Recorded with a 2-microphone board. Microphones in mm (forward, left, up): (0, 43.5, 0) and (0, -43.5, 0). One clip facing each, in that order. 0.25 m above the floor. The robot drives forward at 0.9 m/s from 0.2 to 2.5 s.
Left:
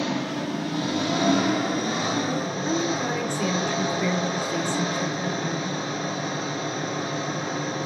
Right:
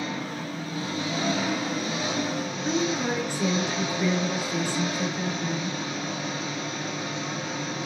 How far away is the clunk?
I don't hear a clunk.